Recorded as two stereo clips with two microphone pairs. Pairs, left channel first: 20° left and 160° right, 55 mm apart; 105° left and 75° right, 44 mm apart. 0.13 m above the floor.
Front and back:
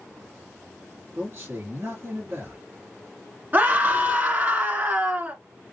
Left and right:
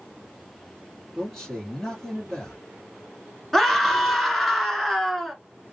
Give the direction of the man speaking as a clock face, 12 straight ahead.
6 o'clock.